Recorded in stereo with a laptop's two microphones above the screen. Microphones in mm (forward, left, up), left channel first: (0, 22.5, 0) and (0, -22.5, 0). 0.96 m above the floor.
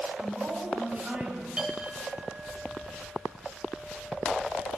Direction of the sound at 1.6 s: 20° right (ahead or behind).